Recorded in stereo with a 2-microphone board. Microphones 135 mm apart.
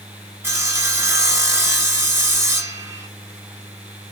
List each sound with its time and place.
0.4 s sawing: 15° right (ahead or behind), 1.3 m